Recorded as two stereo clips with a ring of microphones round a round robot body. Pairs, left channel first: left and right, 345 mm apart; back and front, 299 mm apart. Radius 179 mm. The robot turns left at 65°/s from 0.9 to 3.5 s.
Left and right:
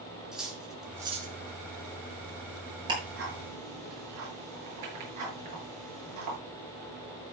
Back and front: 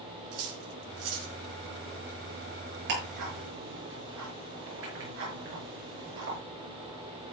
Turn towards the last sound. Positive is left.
turn(degrees=-55)